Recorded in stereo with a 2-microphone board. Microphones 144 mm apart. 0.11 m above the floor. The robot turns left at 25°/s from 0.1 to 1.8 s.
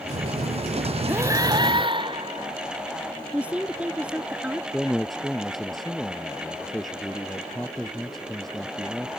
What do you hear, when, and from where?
1.1 s breathing: 15° right (ahead or behind); by 2.6 s 35° right (ahead or behind)
3.3 s a woman speaking: 10° right (ahead or behind)
4.7 s a man speaking: centre (ahead or behind)